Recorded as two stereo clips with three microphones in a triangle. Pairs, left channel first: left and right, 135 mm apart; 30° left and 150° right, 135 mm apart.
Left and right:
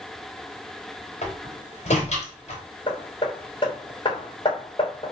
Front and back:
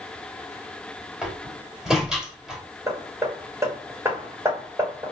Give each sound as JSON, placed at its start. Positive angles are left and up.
{"t": 1.2, "sound": "a door slam", "azimuth_deg": 125, "distance_m": 3.5}
{"t": 2.9, "sound": "hammering", "azimuth_deg": 140, "distance_m": 3.0}